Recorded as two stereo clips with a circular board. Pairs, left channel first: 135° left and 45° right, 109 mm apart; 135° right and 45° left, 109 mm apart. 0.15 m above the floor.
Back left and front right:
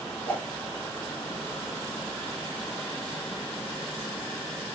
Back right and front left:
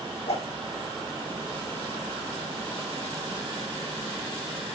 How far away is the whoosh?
About 4 m.